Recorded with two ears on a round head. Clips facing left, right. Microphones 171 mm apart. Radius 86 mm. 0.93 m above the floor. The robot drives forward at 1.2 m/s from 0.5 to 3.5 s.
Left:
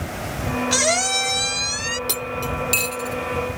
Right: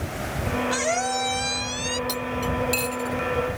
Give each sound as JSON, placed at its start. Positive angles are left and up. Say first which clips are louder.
{"t": 0.7, "sound": "a squeak", "louder": "left 2 dB", "side_deg": 55}
{"t": 2.1, "sound": "cutlery clinking", "louder": "even", "side_deg": 40}